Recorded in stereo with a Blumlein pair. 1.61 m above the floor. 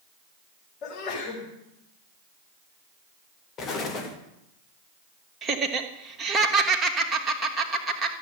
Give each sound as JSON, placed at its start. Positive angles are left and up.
{"t": 0.8, "sound": "a sneeze", "azimuth_deg": 35, "distance_m": 6.5}
{"t": 3.6, "sound": "an explosion", "azimuth_deg": 30, "distance_m": 2.5}
{"t": 5.4, "sound": "laughter", "azimuth_deg": -15, "distance_m": 2.5}